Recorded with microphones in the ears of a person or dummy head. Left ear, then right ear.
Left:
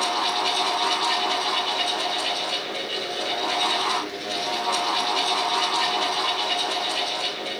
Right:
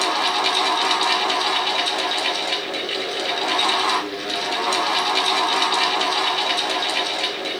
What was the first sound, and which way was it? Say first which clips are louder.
A fan: right 3 dB; 50° right (ahead or behind).